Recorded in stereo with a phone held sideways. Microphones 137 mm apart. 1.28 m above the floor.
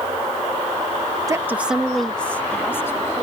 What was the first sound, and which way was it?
A woman speaking, 25° right (ahead or behind).